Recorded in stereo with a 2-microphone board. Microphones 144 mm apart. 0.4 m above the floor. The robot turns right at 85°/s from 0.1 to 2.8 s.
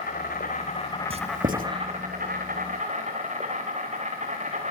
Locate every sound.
0.0 s an insect: 75° left, 5.5 m; by 4.7 s 55° right, 5.5 m
1.1 s writing: 40° right (ahead or behind), 1.3 m; by 1.7 s 75° right (ahead or behind), 1.3 m